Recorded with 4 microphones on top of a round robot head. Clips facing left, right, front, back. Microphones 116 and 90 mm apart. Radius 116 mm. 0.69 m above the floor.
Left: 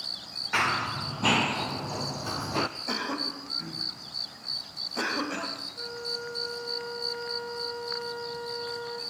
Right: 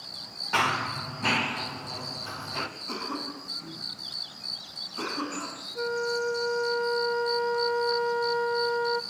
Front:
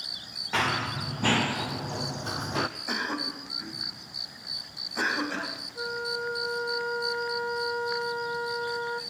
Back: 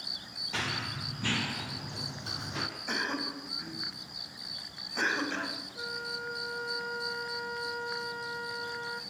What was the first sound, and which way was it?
Running footsteps, 30° right.